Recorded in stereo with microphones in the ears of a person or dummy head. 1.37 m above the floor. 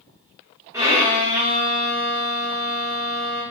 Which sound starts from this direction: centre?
A violin, at 0.7 s.